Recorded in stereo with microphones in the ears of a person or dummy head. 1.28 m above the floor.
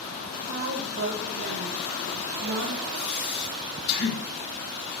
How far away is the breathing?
About 5 m.